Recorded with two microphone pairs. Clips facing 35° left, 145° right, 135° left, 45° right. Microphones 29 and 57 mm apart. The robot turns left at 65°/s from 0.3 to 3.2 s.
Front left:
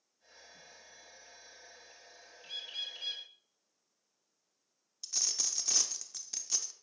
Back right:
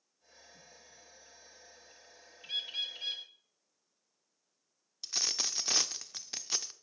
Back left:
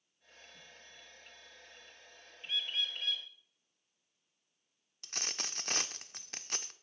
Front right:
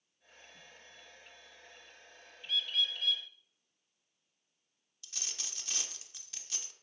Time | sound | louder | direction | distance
2.4 | a bird | back right 4 dB, front right 3 dB | 175° right | 1.4 m
5.0 | a dropped coin | back right 3 dB, back left 6 dB | 170° left | 0.5 m